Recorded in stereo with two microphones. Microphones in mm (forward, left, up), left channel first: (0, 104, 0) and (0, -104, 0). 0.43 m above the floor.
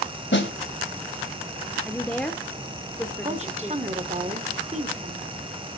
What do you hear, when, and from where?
0.3 s a snare drum: 65° left (ahead or behind), 2 m
1.9 s a woman speaking: 5° left (ahead or behind), 0.8 m
3.2 s a woman speaking: 35° right (ahead or behind), 1.2 m